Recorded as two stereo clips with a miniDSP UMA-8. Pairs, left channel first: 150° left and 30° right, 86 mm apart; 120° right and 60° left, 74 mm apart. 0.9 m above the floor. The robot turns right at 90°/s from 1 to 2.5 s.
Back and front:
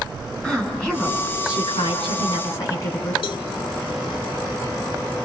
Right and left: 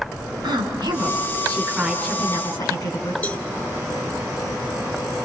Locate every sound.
0.4 s a woman speaking: 70° left, 9 m; by 3.1 s 155° right, 9 m
3.2 s a cowbell: 170° left, 1.3 m